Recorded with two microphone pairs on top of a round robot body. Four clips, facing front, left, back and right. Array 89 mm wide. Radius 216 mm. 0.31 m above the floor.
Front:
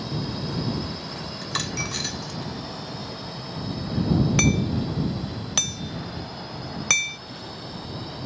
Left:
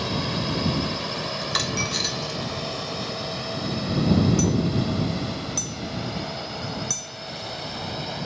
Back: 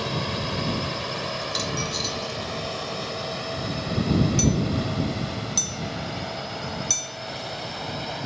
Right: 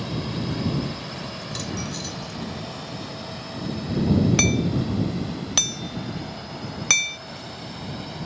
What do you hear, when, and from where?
0.0 s a drone: 160° left; by 8.3 s 165° left
1.4 s a dropped coin: 50° left
4.4 s hammering: 45° right